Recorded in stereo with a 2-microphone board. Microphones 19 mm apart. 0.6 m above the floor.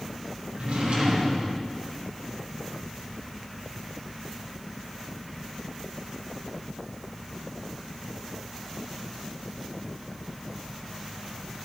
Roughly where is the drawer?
Right.